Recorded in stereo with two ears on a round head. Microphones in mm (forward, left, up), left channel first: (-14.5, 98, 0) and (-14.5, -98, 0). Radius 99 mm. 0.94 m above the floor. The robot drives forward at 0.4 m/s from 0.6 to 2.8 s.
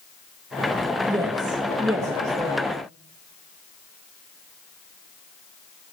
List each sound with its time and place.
1.1 s a woman speaking: 20° right (ahead or behind), 1.3 m; by 2.7 s 15° right (ahead or behind), 1.8 m